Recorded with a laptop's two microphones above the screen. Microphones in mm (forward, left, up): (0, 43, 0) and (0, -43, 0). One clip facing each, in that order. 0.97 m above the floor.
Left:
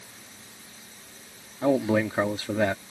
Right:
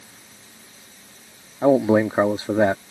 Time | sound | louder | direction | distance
1.6 | a man speaking | right 6 dB | 30° right (ahead or behind) | ?